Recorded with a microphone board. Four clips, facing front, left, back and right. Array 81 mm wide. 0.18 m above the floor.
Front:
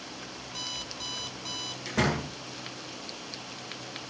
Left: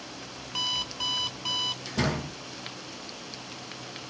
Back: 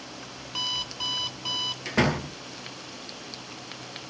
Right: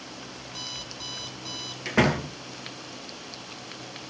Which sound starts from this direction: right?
A door slam, at 1.9 s.